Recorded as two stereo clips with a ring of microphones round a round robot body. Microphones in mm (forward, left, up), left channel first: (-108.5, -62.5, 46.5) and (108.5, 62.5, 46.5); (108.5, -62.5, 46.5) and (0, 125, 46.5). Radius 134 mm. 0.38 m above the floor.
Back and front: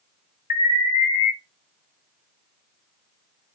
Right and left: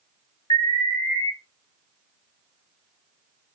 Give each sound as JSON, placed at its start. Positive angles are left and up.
{"t": 0.5, "sound": "an alarm", "azimuth_deg": -115, "distance_m": 2.0}